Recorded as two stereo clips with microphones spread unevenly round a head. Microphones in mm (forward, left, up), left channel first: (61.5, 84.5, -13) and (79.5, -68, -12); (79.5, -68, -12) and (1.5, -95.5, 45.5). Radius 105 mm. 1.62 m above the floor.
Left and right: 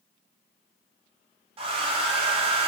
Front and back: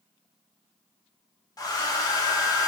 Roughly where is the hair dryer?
Ahead right.